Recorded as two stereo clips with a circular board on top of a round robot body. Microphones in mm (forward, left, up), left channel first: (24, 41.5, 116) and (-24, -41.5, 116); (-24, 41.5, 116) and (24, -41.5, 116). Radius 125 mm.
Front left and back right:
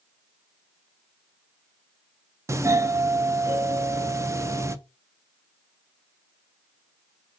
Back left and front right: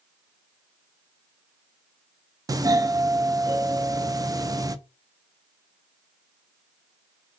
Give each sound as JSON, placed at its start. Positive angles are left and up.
{"t": 2.5, "sound": "a doorbell", "azimuth_deg": -80, "distance_m": 0.5}